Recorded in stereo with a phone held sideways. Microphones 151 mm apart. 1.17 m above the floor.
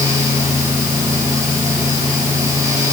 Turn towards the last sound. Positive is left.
turn(degrees=-20)  # may be behind; listen again after turning